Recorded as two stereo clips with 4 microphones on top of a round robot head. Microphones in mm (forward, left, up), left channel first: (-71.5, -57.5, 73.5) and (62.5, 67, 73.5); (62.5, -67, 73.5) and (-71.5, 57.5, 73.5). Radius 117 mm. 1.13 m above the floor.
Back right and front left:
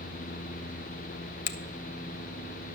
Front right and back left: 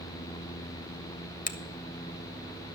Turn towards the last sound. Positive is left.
turn(degrees=-90)